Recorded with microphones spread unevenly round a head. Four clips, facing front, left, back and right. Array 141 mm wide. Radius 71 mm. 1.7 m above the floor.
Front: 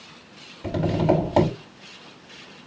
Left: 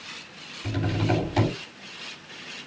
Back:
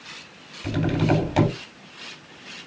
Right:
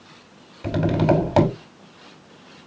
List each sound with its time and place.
0.6 s tapping: 65° right, 6 m